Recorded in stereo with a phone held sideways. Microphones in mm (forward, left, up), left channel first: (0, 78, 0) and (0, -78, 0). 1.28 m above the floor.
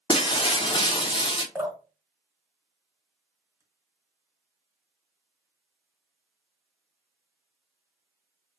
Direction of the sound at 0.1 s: 30° left (ahead or behind).